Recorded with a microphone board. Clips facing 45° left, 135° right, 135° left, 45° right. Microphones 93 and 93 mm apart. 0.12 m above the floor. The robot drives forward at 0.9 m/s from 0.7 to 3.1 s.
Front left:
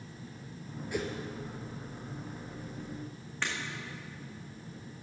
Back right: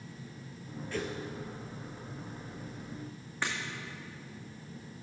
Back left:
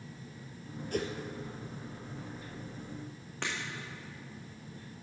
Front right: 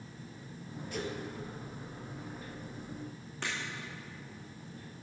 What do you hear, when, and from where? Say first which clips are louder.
0.9 s a whoosh: front left 2 dB, back left 4 dB; 115° left, 1.1 m; by 1.1 s 125° left, 1.1 m
3.4 s breaking glass: back right 1 dB, back left 1 dB; 145° left, 2.5 m